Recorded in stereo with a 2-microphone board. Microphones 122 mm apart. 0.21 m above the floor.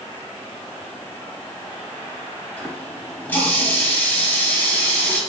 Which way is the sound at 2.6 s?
15° left (ahead or behind).